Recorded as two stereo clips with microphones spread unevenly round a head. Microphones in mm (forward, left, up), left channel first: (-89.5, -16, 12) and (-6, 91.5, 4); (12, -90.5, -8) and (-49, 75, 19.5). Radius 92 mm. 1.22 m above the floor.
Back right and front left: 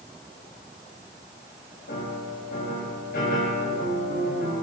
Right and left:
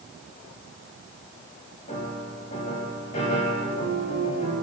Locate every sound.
1.9 s a piano: 125° right, 9 m